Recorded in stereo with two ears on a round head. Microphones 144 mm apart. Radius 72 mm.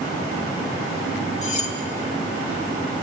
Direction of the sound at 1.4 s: 45° left (ahead or behind).